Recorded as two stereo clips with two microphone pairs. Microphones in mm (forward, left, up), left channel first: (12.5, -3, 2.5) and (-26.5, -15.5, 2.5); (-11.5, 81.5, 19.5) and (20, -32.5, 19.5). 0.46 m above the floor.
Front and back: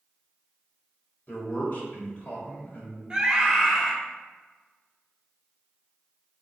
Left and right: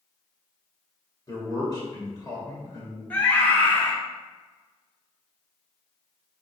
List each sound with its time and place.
1.3 s a man speaking: 55° left, 1.8 m
3.1 s a scream: 160° left, 1.1 m